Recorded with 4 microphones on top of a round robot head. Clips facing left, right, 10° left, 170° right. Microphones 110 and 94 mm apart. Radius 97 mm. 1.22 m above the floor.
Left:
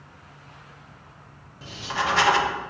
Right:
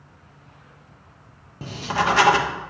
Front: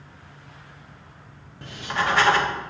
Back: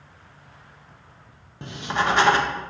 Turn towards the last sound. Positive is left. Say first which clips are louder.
# right 5 dB, back 2 dB
turn(degrees=-110)